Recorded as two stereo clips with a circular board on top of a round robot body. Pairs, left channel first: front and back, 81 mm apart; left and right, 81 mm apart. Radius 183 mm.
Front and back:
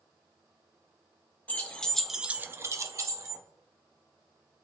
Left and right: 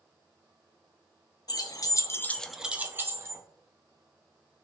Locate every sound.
1.5 s keys jangling: 70° left, 0.8 m; by 3.4 s 140° right, 0.9 m